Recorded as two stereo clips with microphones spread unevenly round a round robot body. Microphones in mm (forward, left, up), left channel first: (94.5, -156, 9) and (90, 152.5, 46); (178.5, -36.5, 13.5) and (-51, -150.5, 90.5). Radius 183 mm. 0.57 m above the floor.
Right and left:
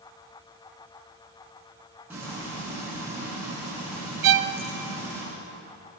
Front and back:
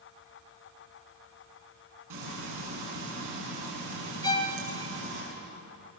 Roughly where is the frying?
Behind.